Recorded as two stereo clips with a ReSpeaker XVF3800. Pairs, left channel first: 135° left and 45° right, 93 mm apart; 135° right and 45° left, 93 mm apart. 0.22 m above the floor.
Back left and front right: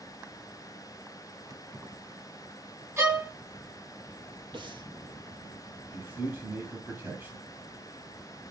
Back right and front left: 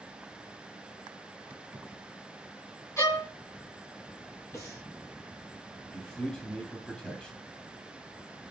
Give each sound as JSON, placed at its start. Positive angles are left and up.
{"t": 1.5, "sound": "keys jangling", "azimuth_deg": -10, "distance_m": 1.0}
{"t": 3.0, "sound": "a violin", "azimuth_deg": -90, "distance_m": 1.8}
{"t": 4.5, "sound": "breathing", "azimuth_deg": -75, "distance_m": 2.5}
{"t": 5.9, "sound": "a man speaking", "azimuth_deg": -65, "distance_m": 1.0}